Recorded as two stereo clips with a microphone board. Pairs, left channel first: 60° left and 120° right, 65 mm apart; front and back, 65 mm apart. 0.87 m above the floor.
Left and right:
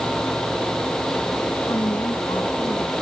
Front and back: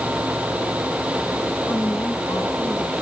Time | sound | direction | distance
1.7 | a woman speaking | 50° left | ?